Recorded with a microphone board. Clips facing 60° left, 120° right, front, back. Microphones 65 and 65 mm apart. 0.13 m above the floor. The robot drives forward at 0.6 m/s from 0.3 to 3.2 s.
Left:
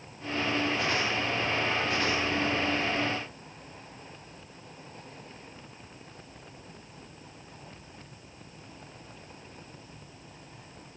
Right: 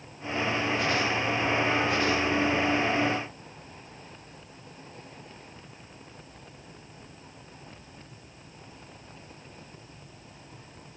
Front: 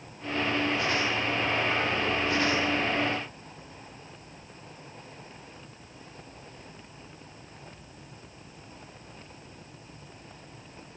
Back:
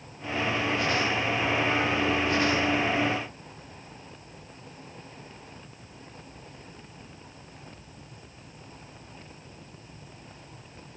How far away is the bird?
I don't hear a bird.